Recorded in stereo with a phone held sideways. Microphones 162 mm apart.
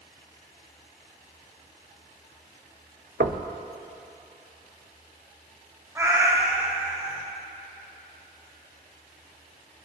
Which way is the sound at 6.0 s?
15° right (ahead or behind).